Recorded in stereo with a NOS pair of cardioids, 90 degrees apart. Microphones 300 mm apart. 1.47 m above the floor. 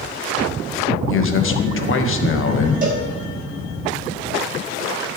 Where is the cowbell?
25° right, 3.5 m.